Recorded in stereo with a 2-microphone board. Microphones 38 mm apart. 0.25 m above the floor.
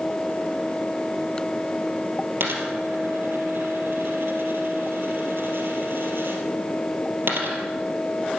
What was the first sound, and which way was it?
A dropped coin, 70° right (ahead or behind).